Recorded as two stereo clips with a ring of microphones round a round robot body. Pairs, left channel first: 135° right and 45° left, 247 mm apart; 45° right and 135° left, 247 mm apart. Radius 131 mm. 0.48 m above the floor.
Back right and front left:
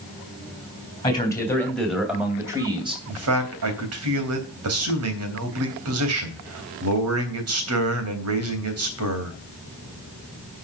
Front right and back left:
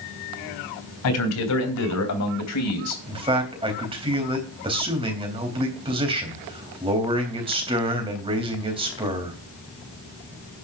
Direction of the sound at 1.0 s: 60° right.